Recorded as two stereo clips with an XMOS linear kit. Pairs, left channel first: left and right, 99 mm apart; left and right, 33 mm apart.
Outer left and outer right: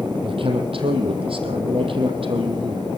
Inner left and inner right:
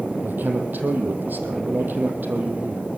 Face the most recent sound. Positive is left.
turn(degrees=-65)  # may be behind; listen again after turning